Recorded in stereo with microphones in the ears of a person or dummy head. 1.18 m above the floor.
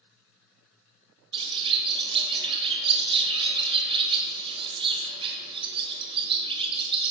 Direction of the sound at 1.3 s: 25° right (ahead or behind).